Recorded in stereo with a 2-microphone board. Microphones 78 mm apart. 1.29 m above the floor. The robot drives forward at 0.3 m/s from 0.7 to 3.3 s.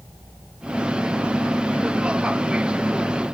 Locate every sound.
Only background noise.